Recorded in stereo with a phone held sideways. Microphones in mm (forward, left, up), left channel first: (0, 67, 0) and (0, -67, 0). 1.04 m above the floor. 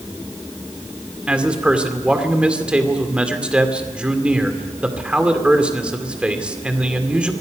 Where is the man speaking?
10° right (ahead or behind), 2.5 m.